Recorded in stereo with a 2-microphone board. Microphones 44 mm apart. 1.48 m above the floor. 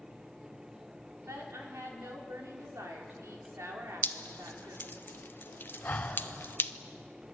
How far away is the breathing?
About 3 m.